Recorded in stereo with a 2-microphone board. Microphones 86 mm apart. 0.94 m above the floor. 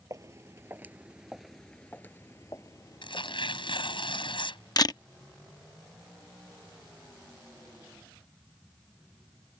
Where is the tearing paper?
75° left (ahead or behind).